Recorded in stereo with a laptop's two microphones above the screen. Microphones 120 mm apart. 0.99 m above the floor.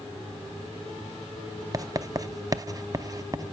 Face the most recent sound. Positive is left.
turn(degrees=-30)  # may be behind; listen again after turning